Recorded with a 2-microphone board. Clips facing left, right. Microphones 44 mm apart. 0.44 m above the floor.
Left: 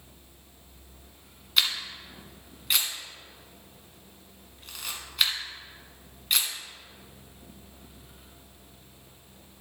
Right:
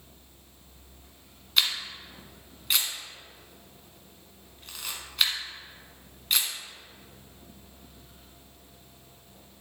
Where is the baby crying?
No baby crying in this recording.